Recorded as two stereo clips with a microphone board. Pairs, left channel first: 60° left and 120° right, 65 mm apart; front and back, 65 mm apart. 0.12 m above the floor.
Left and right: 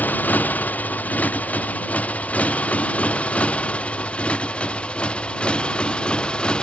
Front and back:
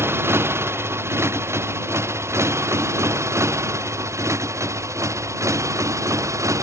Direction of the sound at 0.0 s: 125° left.